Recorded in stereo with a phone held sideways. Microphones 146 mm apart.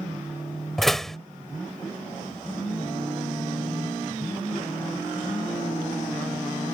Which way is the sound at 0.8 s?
Centre (ahead or behind).